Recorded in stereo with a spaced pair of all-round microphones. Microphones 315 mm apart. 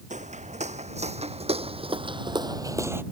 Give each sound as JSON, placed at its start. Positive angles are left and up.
{"t": 0.1, "sound": "footsteps", "side_deg": -25}